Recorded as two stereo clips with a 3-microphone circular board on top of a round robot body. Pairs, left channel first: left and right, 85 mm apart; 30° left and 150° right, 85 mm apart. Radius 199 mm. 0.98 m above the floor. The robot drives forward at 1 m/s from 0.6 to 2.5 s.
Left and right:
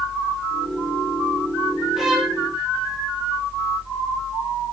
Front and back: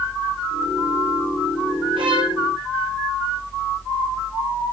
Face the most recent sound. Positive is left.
turn(degrees=-175)